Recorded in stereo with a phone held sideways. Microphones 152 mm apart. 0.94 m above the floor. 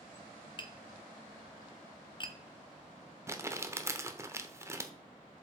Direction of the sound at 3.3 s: 20° right (ahead or behind).